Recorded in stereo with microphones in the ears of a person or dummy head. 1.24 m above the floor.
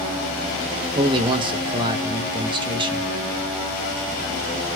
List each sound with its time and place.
0.9 s a man speaking: 25° right (ahead or behind), 0.6 m